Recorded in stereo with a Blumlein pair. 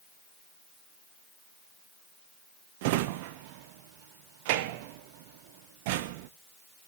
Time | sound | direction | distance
2.8 | a drawer | 50° right | 0.5 m